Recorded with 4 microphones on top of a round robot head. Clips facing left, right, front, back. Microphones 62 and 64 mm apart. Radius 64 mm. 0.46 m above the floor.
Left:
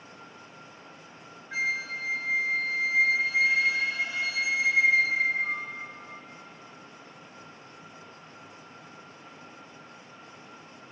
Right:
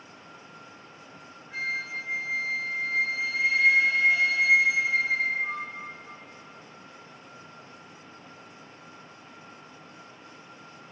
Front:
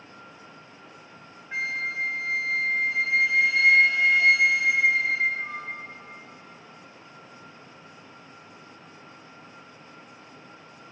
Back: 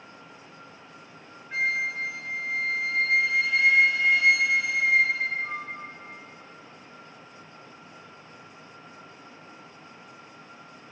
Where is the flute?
85° left, 1.5 m.